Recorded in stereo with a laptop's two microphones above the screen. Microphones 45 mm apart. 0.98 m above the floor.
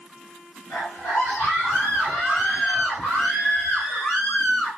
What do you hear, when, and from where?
0.7 s a scream: 50° left (ahead or behind), 3.5 m; by 4.7 s 25° left (ahead or behind), 7.5 m